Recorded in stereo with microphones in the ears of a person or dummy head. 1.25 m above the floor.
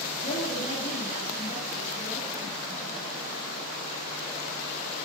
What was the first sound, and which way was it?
A woman speaking, 45° left (ahead or behind).